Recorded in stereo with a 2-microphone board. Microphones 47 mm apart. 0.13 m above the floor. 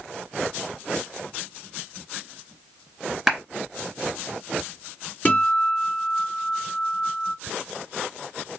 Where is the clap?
5° right (ahead or behind), 2.0 m.